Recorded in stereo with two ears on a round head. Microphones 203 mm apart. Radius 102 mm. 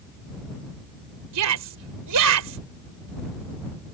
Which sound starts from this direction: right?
A shout, at 1.3 s.